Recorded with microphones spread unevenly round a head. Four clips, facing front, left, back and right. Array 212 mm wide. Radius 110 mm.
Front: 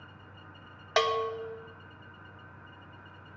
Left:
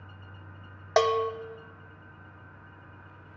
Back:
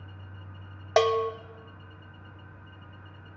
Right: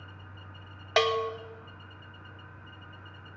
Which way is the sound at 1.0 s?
155° left.